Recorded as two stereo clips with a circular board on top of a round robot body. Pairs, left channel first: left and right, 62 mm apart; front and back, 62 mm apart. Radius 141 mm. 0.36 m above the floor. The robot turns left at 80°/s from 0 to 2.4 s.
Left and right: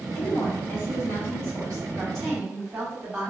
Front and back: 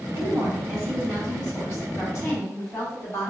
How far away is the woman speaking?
About 1.8 m.